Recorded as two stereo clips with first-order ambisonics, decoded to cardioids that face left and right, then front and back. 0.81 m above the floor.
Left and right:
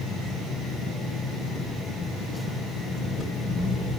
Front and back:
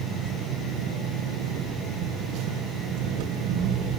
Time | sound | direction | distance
0.0 | an engine running | 175° right | 4 m